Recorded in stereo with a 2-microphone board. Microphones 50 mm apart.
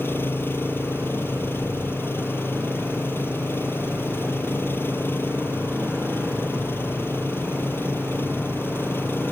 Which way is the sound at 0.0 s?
50° left (ahead or behind).